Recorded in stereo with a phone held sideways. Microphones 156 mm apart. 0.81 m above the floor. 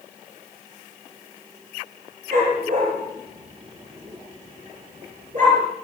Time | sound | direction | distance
2.3 | a dog barking | 65° right (ahead or behind) | 8.5 m